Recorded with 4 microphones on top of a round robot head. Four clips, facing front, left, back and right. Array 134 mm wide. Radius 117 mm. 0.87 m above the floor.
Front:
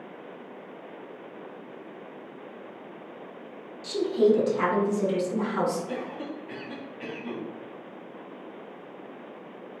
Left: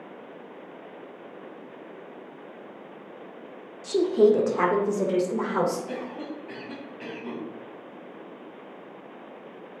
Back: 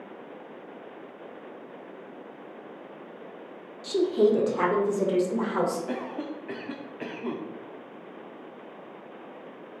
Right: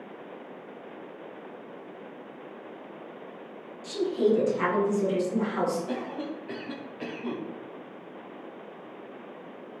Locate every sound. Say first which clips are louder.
3.8 s a woman speaking: left 6 dB, even; 120° left, 1.8 m; by 5.8 s 125° left, 3 m
5.9 s a cough: right 1 dB, back 1 dB; 160° right, 2.5 m